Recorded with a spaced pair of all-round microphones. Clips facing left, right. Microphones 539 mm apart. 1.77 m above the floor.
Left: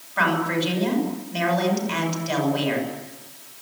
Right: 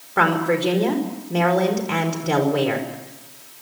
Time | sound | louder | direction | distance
0.2 | a woman speaking | right 4 dB | 85° right | 5 m